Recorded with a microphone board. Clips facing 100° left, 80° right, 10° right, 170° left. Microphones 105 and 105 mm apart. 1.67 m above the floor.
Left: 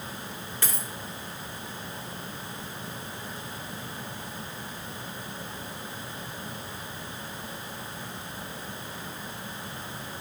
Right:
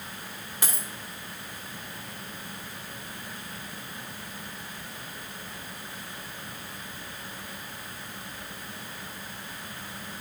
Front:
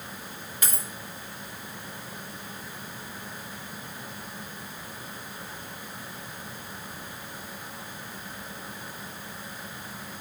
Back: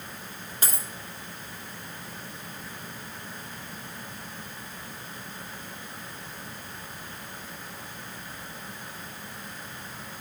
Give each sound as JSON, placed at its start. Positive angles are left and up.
{"t": 0.6, "sound": "a dropped coin", "azimuth_deg": -150, "distance_m": 1.8}